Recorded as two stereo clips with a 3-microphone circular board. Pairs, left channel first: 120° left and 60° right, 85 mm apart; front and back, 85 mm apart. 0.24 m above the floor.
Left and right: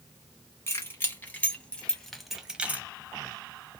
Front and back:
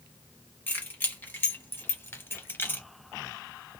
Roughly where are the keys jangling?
Ahead left.